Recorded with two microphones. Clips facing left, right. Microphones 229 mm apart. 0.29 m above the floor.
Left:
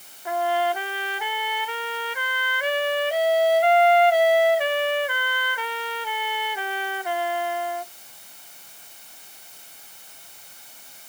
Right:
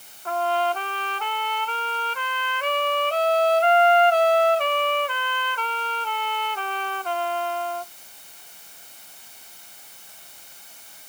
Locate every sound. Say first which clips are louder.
0.2 s a trumpet: left 1 dB; 10° left (ahead or behind)